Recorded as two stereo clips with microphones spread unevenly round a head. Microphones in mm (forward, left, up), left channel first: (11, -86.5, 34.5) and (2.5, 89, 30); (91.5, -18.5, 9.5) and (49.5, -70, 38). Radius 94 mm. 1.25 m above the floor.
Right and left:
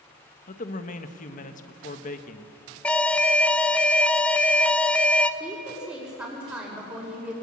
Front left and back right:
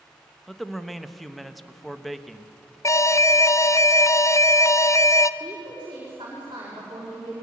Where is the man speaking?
40° right, 1.3 m.